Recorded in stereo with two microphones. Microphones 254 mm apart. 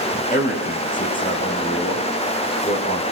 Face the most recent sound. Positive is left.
turn(degrees=30)  # may be behind; listen again after turning